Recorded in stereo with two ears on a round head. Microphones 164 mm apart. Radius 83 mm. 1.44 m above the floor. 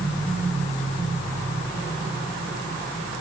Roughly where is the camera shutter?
I don't hear a camera shutter.